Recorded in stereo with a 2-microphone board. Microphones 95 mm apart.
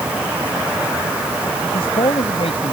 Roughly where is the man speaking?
Left.